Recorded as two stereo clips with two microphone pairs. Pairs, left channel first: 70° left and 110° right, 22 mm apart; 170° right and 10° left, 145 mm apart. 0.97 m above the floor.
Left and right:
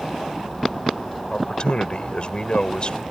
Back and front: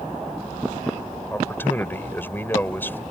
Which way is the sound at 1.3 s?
110° left.